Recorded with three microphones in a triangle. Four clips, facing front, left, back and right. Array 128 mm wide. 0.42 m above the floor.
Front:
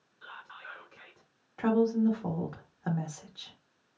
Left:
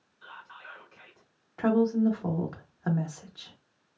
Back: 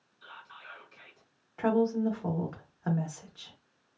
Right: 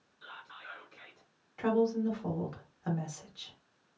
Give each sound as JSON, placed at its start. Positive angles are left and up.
{"t": 0.2, "sound": "whispering", "azimuth_deg": 20, "distance_m": 1.3}
{"t": 1.6, "sound": "a woman speaking", "azimuth_deg": 85, "distance_m": 0.8}